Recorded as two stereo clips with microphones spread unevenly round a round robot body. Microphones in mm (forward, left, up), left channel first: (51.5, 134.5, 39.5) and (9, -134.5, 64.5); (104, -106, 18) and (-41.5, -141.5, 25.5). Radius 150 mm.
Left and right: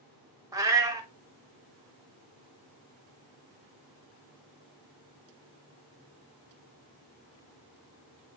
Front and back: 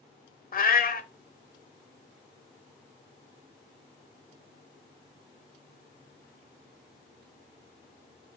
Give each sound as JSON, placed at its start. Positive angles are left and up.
{"t": 0.5, "sound": "a cat meowing", "azimuth_deg": -20, "distance_m": 0.9}